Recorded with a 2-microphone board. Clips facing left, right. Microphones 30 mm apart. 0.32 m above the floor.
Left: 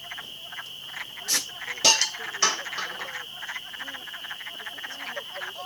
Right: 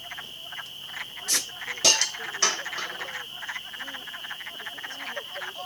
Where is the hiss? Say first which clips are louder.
Even; 5° left (ahead or behind), 1.2 m.